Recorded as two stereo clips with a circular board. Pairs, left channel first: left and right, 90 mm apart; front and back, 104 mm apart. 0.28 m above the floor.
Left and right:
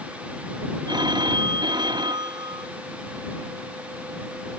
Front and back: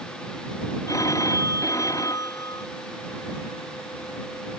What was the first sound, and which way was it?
A phone ringing, 55° right.